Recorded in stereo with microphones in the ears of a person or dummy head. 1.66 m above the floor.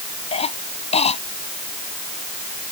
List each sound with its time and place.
0.3 s a cough: 40° left (ahead or behind)